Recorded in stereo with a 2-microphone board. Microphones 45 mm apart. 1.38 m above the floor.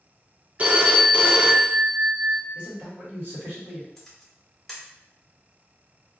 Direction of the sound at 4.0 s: 10° left (ahead or behind).